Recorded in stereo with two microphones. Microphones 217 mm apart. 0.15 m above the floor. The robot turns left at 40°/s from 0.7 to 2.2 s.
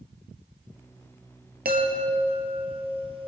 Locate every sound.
1.6 s a chime: 45° right (ahead or behind), 2.5 m; by 3.3 s 25° right (ahead or behind), 2.5 m